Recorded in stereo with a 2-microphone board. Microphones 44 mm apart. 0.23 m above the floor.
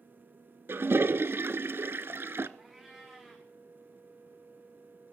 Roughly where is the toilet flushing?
Right.